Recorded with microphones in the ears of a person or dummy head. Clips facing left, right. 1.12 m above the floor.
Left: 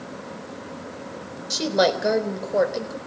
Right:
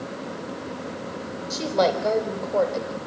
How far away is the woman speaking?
About 4 m.